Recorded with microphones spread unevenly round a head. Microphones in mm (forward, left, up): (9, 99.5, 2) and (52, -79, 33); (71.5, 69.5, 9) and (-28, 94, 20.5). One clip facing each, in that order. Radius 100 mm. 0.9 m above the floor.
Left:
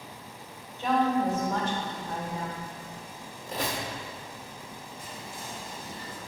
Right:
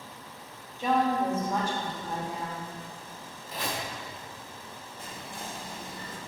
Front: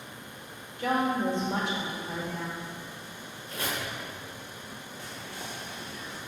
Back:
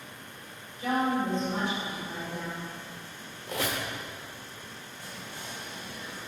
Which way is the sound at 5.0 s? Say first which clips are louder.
Right 3 dB, front 1 dB; 40° right.